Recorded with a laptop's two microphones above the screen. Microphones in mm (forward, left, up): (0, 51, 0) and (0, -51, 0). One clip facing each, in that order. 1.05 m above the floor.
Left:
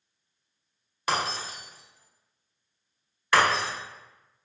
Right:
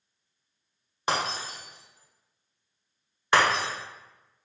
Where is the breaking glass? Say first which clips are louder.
Even; 25° right (ahead or behind), 1.0 m.